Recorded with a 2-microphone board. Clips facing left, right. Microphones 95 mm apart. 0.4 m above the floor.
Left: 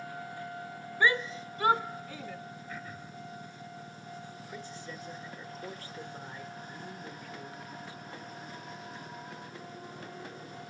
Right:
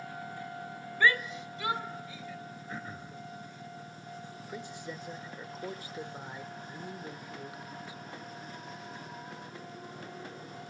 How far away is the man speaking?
About 1.1 m.